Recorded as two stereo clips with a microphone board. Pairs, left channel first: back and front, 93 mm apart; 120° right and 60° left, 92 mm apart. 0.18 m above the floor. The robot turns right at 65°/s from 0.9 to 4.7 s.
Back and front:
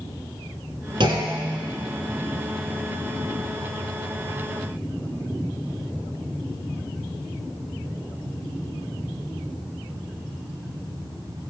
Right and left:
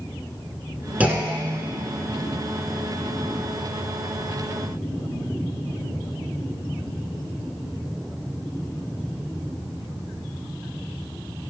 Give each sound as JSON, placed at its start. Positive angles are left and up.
{"t": 1.0, "sound": "a clunk", "azimuth_deg": -10, "distance_m": 1.0}